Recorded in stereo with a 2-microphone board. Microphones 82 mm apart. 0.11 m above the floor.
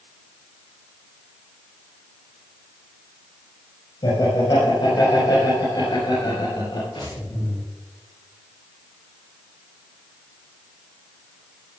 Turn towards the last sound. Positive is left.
turn(degrees=80)